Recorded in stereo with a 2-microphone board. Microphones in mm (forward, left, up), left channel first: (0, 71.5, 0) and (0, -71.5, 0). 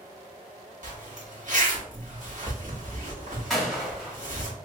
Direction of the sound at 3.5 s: Centre (ahead or behind).